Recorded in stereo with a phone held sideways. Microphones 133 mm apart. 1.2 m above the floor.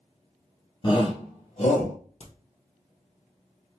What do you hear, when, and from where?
0.8 s a shout: 40° left (ahead or behind), 0.7 m; by 1.9 s 55° left (ahead or behind), 1.3 m
2.2 s a crack: 60° left (ahead or behind), 1.1 m